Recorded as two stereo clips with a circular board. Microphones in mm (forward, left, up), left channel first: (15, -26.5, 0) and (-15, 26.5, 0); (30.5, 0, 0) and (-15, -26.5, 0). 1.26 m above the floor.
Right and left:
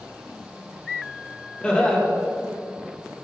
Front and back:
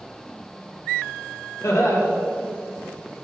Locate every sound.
1.6 s laughter: 15° left, 1.6 m